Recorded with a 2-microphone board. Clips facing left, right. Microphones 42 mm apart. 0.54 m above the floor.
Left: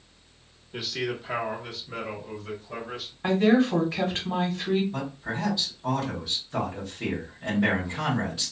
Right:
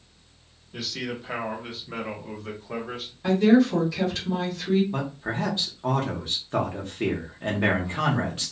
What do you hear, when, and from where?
0.7 s a man speaking: 20° left (ahead or behind), 0.8 m; by 3.1 s 55° right (ahead or behind), 1.3 m
3.2 s a woman speaking: 35° left (ahead or behind), 1.1 m
4.9 s a man speaking: 45° right (ahead or behind), 0.9 m